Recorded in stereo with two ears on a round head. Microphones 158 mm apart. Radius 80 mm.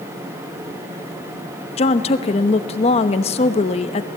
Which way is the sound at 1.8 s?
35° left (ahead or behind).